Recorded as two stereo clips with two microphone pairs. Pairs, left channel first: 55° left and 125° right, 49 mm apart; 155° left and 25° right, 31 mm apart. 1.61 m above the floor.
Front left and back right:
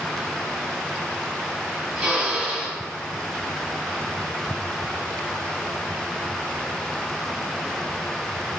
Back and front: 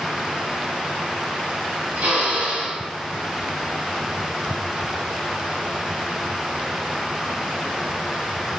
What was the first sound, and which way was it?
A drill, 55° right.